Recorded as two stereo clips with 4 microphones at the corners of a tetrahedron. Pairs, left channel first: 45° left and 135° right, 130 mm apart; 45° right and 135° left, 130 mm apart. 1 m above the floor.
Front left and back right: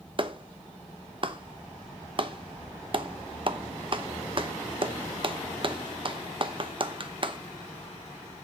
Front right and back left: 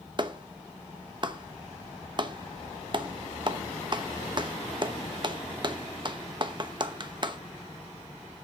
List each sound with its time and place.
0.2 s a clap: straight behind, 0.9 m